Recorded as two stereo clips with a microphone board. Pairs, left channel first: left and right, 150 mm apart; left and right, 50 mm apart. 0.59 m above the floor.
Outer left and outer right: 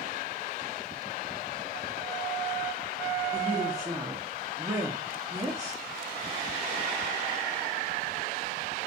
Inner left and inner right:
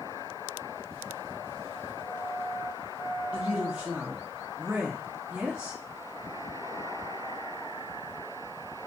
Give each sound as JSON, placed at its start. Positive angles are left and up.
{"t": 3.3, "sound": "a woman speaking", "side_deg": -20, "distance_m": 0.8}